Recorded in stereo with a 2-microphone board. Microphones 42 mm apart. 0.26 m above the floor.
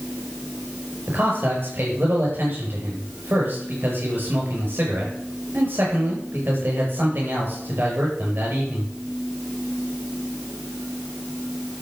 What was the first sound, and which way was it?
A man speaking, 50° right (ahead or behind).